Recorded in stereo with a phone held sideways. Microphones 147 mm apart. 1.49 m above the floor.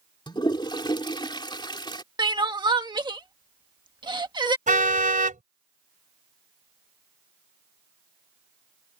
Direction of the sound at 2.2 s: 30° right (ahead or behind).